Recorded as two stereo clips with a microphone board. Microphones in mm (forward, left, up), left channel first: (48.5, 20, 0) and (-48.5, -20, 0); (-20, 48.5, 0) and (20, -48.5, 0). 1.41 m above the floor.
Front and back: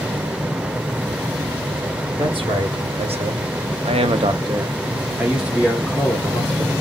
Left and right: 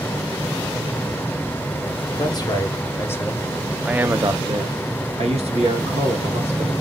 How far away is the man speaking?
About 1.1 m.